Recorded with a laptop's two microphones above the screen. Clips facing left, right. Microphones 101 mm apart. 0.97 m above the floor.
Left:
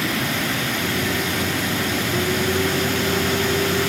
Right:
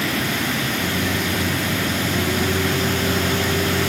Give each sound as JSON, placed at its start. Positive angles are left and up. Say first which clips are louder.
{"t": 0.8, "sound": "a microwave", "louder": "right 1 dB", "side_deg": -45, "distance_m": 6.0}